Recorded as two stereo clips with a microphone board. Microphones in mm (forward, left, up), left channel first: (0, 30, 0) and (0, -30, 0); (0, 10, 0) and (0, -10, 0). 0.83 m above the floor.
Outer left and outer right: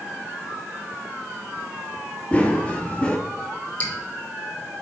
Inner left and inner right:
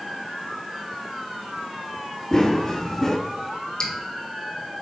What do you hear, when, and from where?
2.3 s running footsteps: 20° left (ahead or behind), 0.9 m
3.8 s dripping: 25° left (ahead or behind), 1.6 m